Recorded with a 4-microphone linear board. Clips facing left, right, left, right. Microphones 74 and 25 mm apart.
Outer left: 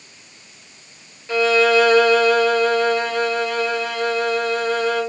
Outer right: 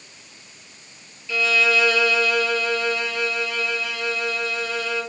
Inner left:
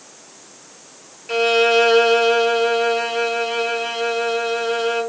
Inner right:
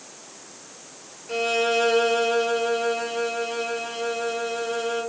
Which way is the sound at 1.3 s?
45° left (ahead or behind).